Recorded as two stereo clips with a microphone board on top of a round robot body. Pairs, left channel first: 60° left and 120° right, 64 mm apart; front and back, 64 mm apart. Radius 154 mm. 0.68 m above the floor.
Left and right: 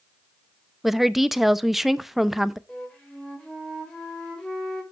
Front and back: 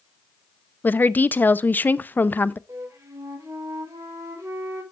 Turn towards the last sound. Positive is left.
turn(degrees=140)